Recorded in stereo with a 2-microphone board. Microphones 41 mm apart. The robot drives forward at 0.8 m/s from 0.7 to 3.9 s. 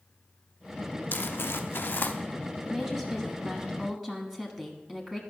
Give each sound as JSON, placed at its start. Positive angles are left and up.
{"t": 1.1, "sound": "crumpling", "side_deg": 55, "distance_m": 0.7}
{"t": 2.6, "sound": "a woman speaking", "side_deg": 10, "distance_m": 1.9}